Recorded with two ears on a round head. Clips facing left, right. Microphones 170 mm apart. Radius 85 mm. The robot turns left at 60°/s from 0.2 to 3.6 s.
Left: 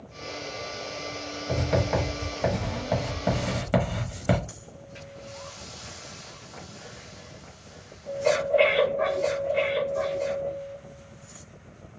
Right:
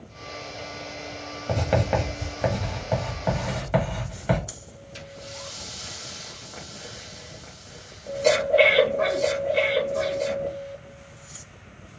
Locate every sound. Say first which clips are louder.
1.5 s writing: right 2 dB; 70° right (ahead or behind), 1.5 m; by 4.4 s 55° left (ahead or behind), 1.5 m
4.5 s breathing: right 1 dB; 45° right (ahead or behind), 0.8 m